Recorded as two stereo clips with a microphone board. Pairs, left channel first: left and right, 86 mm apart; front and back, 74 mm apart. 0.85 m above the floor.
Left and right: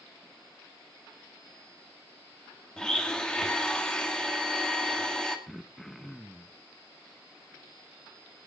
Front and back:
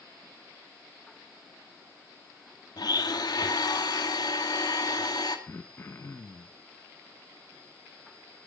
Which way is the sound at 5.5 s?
5° left.